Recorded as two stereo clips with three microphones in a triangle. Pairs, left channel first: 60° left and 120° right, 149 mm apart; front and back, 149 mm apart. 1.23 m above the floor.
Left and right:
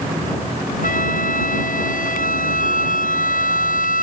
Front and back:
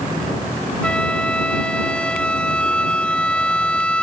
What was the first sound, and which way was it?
A flute, 85° left.